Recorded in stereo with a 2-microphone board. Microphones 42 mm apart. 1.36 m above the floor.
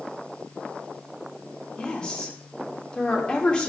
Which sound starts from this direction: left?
A woman speaking, at 1.8 s.